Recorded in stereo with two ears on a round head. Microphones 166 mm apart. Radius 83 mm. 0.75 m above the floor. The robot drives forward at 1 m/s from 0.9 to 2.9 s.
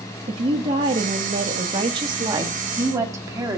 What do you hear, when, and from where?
0.3 s a woman speaking: 30° right (ahead or behind), 1.1 m; by 3.6 s 15° right (ahead or behind), 1.8 m